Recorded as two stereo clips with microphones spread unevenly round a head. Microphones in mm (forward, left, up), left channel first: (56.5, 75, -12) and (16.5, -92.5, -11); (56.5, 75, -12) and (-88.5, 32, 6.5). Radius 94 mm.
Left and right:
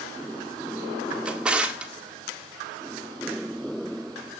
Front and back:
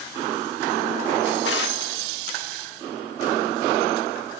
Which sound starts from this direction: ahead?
A drawer, at 1.2 s.